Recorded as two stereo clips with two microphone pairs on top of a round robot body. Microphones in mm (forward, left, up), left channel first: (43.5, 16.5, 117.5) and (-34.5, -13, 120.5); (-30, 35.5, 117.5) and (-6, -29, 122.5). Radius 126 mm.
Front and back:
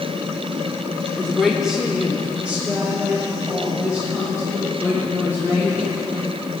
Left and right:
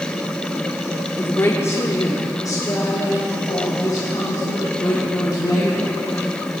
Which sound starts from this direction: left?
A woman speaking, at 1.2 s.